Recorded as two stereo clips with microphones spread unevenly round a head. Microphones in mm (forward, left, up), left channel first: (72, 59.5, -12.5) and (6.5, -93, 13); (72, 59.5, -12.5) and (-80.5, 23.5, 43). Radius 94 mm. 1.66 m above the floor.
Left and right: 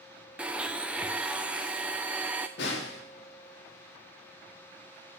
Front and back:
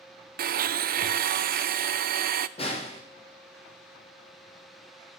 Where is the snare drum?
65° left, 3.5 m.